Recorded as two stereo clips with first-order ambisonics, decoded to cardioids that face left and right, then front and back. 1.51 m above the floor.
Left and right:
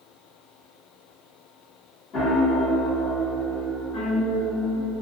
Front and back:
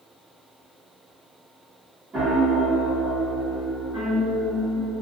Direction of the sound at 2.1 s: 120° left.